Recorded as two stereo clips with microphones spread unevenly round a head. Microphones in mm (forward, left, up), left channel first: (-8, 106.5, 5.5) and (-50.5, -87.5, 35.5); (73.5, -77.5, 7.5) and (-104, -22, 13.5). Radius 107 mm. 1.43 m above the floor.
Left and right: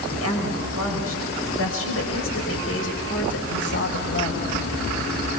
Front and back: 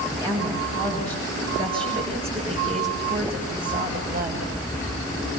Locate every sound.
0.1 s a woman speaking: 85° left, 6.5 m; by 4.5 s 115° left, 6.5 m